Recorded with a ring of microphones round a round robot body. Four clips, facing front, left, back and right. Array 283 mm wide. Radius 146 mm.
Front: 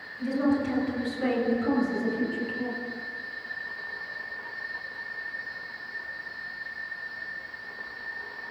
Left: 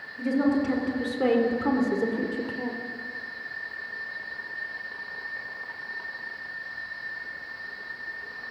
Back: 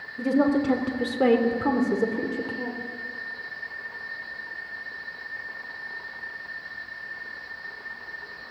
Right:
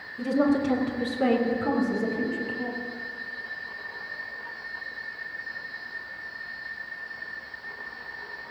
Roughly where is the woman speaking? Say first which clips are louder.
Right 1 dB, back 4 dB; behind.